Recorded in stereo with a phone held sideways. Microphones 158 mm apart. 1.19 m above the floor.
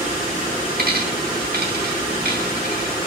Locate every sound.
0.8 s a dropped coin: 80° right, 4 m